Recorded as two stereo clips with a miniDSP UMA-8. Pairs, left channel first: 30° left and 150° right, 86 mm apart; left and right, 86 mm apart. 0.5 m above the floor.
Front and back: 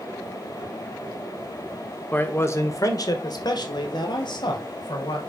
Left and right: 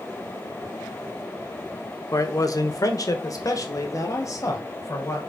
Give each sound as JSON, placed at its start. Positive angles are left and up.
{"t": 2.1, "sound": "a man speaking", "azimuth_deg": 85, "distance_m": 1.0}